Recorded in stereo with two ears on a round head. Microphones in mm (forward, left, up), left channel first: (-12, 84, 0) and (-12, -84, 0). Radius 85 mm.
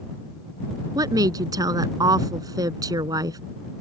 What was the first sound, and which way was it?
A woman speaking, 20° right (ahead or behind).